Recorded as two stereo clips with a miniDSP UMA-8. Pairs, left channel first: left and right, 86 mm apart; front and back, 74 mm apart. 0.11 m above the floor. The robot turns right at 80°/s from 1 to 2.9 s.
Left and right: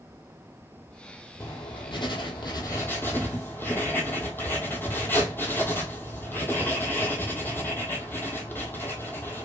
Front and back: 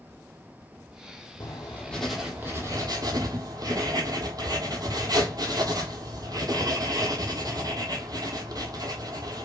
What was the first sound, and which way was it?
Writing, 35° left.